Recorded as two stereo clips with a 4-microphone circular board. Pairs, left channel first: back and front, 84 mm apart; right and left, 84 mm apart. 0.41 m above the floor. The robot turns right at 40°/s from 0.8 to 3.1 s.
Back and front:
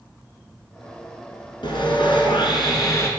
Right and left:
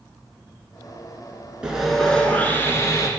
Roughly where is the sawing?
Behind.